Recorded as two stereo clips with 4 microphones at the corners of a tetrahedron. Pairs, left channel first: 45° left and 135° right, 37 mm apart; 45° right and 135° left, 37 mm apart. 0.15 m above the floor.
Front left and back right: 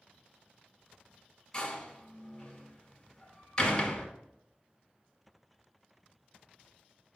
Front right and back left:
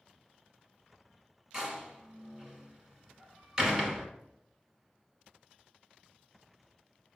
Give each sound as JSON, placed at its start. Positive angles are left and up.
{"t": 1.5, "sound": "a door slam", "azimuth_deg": 85, "distance_m": 1.2}